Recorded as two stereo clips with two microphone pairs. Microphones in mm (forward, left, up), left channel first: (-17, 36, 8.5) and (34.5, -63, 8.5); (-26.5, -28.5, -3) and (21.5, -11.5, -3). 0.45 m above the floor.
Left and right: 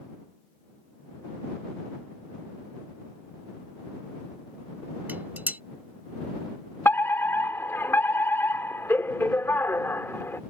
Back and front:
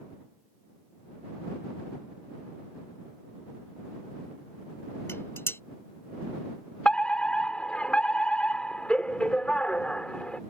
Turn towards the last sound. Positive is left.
turn(degrees=160)